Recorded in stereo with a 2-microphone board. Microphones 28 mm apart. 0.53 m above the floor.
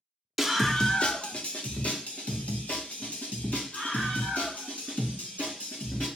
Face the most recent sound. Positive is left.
turn(degrees=85)